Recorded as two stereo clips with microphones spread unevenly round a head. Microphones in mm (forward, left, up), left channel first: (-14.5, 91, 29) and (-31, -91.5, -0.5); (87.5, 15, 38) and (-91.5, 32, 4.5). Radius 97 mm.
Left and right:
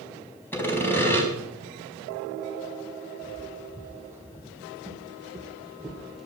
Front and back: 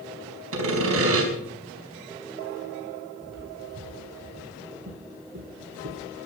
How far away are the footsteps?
About 4 m.